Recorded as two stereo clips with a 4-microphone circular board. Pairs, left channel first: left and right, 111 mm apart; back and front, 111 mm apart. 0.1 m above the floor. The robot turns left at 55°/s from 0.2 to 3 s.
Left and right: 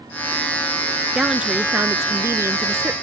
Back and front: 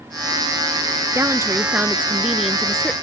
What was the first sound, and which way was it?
A woman speaking, 10° right.